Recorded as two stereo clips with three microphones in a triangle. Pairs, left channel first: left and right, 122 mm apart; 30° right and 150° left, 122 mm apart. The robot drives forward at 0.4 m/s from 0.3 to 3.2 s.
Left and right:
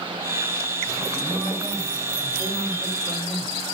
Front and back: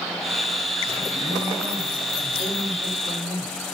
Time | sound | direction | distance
1.1 | a man speaking | 175° left | 8.5 m